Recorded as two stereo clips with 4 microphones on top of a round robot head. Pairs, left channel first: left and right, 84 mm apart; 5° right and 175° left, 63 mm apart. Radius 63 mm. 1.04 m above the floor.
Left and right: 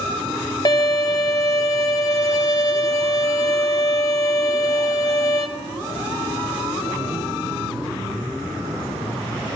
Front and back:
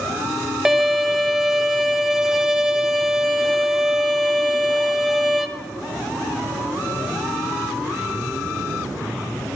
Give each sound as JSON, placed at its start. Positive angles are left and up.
{"t": 0.7, "sound": "a violin", "azimuth_deg": 95, "distance_m": 0.6}